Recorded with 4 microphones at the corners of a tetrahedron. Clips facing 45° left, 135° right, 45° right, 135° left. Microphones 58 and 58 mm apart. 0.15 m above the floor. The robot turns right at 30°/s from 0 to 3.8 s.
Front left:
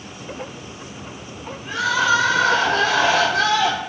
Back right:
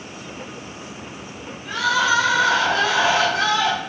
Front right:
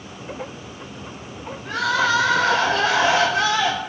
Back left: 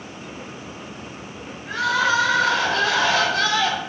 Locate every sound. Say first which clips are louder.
1.6 s crying: even, even; 30° right, 1.3 m; by 3.8 s 35° left, 1.3 m